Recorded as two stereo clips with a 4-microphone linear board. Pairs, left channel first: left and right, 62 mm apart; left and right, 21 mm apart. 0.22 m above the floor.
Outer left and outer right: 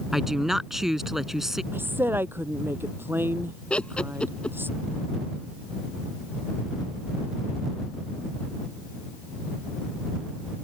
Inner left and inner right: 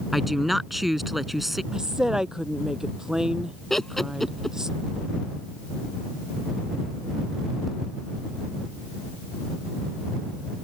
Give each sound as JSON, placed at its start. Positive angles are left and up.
{"t": 0.1, "sound": "a woman speaking", "side_deg": -5}
{"t": 1.7, "sound": "a woman speaking", "side_deg": -35}
{"t": 3.7, "sound": "laughter", "side_deg": 15}